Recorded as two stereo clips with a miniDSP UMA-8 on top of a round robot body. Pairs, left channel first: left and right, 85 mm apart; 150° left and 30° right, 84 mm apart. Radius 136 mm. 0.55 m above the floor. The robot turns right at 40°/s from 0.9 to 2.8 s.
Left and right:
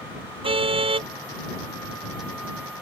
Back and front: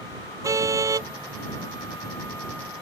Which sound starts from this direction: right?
A car horn, at 0.4 s.